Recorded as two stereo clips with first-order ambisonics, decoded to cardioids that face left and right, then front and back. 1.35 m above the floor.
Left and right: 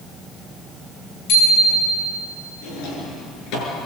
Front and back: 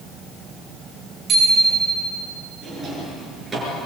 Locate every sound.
1.3 s a bicycle bell: 115° left, 8.5 m
2.6 s a drawer: 105° left, 6.5 m